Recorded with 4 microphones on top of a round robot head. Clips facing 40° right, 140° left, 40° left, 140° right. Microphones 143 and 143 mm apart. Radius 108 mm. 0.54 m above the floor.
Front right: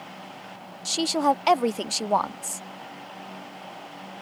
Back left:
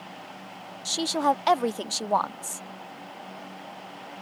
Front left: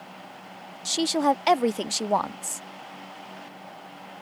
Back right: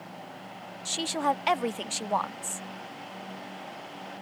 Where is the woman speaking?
35° left.